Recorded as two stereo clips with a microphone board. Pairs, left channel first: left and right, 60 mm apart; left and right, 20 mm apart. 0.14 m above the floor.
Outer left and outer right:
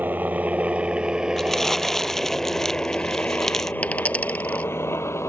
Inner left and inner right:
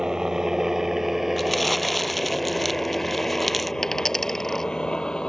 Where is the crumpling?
5° left (ahead or behind).